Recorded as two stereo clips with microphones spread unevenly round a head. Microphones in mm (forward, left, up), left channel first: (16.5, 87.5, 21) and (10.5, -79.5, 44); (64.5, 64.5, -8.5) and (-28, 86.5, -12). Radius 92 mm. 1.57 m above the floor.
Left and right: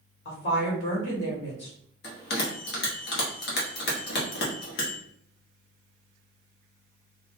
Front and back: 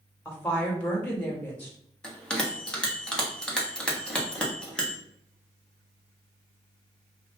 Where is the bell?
70° left, 1.0 m.